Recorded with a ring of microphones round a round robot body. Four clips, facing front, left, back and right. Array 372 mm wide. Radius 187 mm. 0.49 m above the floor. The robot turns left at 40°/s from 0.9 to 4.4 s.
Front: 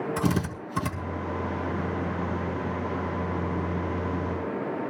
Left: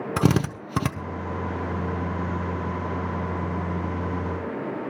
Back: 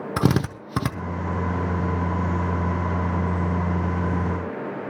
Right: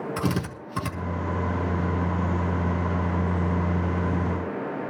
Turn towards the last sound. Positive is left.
turn(degrees=0)